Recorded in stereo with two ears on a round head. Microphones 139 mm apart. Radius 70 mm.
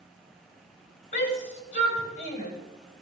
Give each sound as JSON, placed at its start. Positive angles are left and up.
{"t": 1.1, "sound": "a shout", "side_deg": 45, "distance_m": 8.0}